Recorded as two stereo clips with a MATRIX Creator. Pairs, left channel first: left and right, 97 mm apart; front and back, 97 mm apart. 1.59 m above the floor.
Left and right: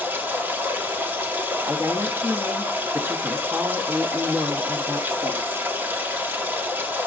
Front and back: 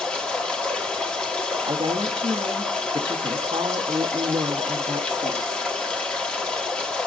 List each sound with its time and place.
0.0 s running water: 60° right, 1.1 m
1.6 s a woman speaking: 155° right, 0.8 m